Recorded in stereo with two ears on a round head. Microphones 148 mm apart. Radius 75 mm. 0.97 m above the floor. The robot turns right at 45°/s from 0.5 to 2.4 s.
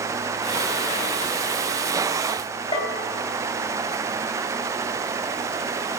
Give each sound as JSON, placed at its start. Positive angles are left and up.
{"t": 2.7, "sound": "a bell", "side_deg": 30, "distance_m": 2.0}